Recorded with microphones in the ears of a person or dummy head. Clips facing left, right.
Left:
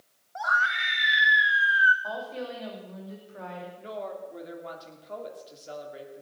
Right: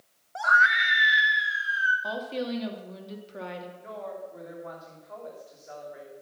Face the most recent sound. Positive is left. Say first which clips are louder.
# left 1 dB
turn(degrees=45)  # may be behind; listen again after turning